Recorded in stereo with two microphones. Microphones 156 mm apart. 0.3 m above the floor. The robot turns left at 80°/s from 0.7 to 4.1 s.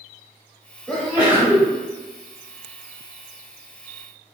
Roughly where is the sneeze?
Centre.